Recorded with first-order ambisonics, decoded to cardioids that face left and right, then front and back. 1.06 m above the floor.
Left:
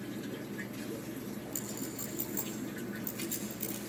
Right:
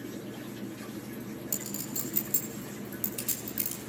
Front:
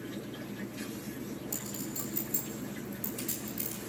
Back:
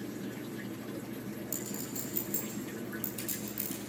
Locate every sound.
1.5 s a clink: 95° right, 6.5 m